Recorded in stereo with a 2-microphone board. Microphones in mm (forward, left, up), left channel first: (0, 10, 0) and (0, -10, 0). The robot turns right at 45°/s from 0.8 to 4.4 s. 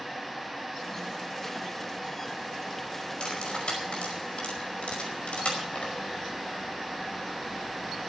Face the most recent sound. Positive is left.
turn(degrees=80)